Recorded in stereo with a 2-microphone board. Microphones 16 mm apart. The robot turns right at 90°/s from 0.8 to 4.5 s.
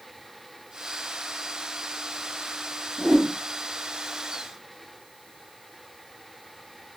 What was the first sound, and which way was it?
A whoosh, 30° right (ahead or behind).